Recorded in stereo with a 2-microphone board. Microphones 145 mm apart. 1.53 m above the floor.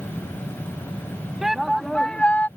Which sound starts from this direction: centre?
A shout, at 1.4 s.